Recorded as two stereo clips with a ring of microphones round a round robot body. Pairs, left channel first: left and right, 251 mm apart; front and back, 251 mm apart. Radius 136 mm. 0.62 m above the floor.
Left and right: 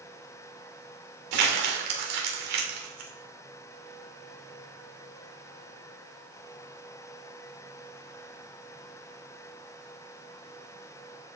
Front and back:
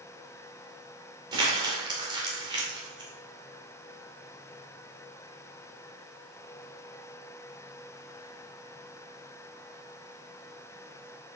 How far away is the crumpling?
About 2 m.